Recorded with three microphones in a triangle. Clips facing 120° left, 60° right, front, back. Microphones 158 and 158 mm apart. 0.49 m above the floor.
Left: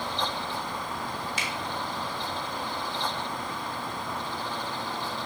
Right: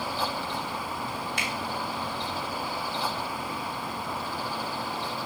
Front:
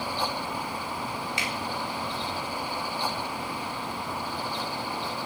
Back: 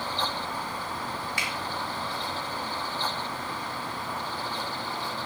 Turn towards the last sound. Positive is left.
turn(degrees=-60)